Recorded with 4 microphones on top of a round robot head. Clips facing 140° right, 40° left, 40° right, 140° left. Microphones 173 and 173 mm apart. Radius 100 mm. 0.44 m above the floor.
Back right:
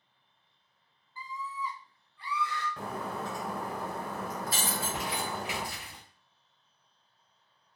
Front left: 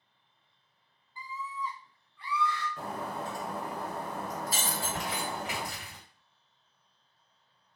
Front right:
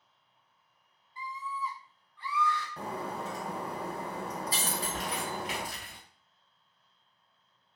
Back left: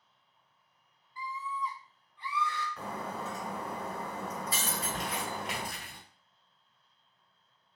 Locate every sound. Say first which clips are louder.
1.2 s a scream: even, back left 1 dB; 10° right, 0.8 m; by 2.7 s 165° right, 1.1 m
2.8 s breaking glass: even, front right 2 dB; 100° right, 1.1 m
4.7 s crumpling: even, front right 1 dB; 155° left, 1.8 m